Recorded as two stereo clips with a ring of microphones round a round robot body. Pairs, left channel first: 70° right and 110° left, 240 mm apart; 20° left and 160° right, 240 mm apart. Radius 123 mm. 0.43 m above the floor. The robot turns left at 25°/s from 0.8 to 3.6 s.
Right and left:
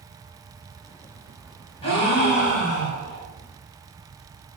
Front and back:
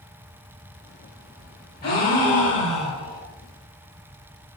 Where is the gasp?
10° right, 1.8 m; by 3.3 s 45° right, 1.8 m.